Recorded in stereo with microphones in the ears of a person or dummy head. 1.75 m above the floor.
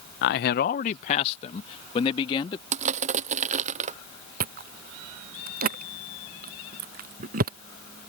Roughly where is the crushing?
Right.